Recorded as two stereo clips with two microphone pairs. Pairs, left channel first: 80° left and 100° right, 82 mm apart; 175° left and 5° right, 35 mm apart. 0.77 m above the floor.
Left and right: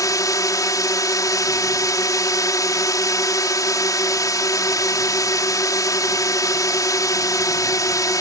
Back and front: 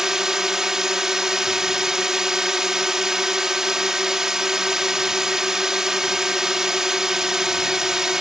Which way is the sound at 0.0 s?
60° left.